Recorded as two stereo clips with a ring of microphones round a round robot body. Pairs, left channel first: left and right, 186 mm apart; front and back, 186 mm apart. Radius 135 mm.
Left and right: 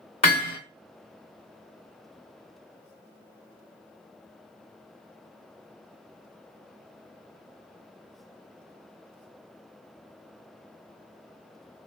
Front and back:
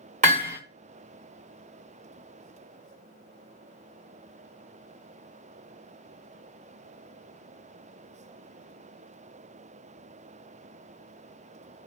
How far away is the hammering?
About 1.6 m.